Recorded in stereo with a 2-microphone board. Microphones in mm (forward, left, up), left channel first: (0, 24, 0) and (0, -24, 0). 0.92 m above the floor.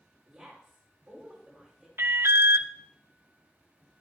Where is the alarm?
55° right (ahead or behind), 0.8 m.